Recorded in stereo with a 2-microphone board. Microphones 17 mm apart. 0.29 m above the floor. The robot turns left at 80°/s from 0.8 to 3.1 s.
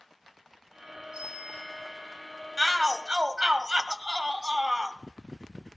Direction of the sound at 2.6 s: 25° right.